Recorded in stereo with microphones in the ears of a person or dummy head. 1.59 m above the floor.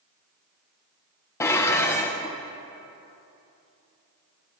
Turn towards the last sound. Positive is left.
turn(degrees=15)  # may be behind; listen again after turning